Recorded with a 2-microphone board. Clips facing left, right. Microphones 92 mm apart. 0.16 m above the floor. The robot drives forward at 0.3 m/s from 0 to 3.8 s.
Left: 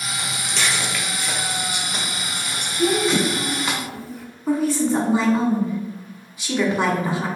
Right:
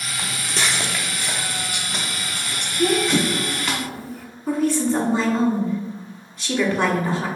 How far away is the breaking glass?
No breaking glass in this recording.